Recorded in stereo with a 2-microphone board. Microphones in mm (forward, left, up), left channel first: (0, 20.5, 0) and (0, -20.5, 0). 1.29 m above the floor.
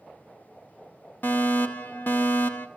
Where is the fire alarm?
45° left (ahead or behind), 1.9 m.